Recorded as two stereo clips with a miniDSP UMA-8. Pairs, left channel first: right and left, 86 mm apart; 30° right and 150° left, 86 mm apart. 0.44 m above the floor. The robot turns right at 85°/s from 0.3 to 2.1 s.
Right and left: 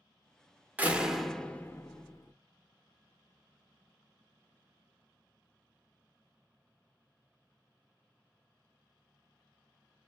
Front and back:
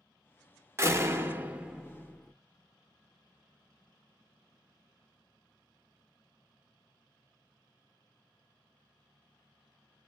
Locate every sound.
0.8 s a door slam: 145° left, 0.6 m; by 2.3 s 105° right, 0.6 m